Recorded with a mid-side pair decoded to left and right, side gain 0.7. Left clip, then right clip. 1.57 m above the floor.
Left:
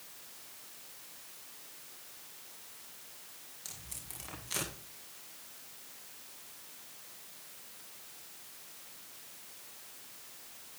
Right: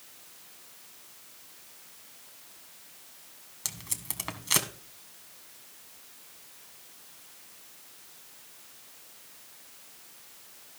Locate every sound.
3.6 s tape being pulled: 65° right, 1.7 m